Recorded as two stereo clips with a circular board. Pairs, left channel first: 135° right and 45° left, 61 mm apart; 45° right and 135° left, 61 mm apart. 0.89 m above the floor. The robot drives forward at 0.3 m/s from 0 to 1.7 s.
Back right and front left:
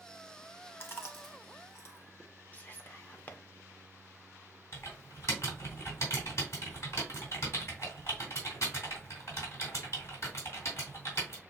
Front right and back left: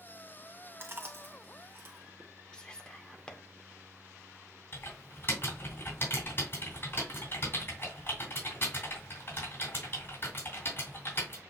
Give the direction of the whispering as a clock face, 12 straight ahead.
4 o'clock.